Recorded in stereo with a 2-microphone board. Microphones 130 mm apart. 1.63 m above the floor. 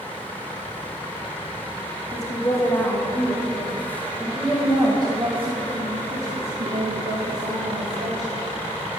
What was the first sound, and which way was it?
A woman speaking, 30° left (ahead or behind).